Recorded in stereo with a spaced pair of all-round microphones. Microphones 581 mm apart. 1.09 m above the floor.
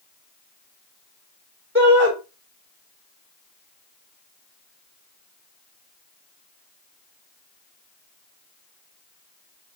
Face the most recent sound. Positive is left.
turn(degrees=-20)  # may be behind; listen again after turning